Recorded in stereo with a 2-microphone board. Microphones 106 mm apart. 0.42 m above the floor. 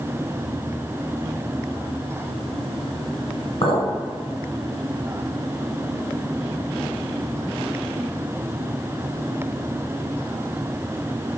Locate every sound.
3.6 s a clink: 65° left (ahead or behind), 0.9 m